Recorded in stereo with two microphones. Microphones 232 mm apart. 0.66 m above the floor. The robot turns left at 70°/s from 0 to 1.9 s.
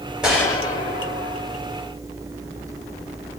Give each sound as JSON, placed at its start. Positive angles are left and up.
{"t": 0.2, "sound": "a gunshot", "azimuth_deg": -175, "distance_m": 1.5}